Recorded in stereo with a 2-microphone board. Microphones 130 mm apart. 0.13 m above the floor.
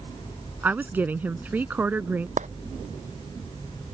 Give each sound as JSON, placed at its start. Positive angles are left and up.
{"t": 0.6, "sound": "a woman speaking", "side_deg": -15}
{"t": 2.4, "sound": "a clap", "side_deg": -70}